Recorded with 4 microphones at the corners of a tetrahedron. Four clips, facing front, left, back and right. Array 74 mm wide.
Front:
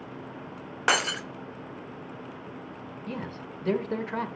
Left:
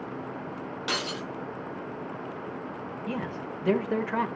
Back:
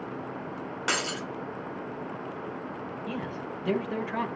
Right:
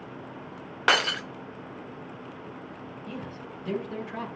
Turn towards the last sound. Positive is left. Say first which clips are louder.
# left 6 dB, even
turn(degrees=75)